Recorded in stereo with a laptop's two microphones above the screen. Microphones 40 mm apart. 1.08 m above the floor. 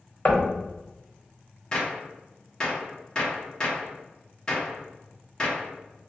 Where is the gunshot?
20° left (ahead or behind), 0.8 m.